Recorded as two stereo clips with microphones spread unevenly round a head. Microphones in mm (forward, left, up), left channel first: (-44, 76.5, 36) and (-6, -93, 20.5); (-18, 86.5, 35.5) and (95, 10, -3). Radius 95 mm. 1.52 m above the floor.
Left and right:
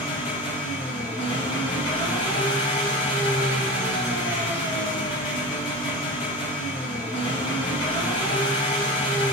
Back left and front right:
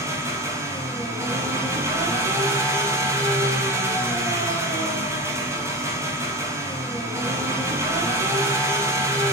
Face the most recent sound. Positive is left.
turn(degrees=35)